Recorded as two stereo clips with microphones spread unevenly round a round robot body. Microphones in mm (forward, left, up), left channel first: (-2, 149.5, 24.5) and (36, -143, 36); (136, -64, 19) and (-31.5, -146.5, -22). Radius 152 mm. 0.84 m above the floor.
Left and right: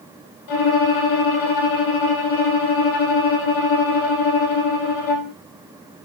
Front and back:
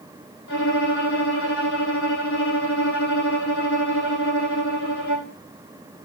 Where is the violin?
85° left, 6.5 m.